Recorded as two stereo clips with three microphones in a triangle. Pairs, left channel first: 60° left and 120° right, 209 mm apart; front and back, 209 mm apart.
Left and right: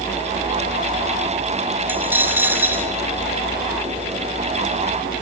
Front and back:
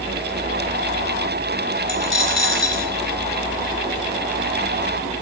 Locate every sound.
1.9 s a dropped coin: 160° left, 3 m